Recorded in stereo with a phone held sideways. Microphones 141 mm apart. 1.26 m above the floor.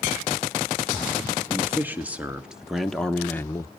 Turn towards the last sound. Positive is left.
turn(degrees=25)  # may be behind; listen again after turning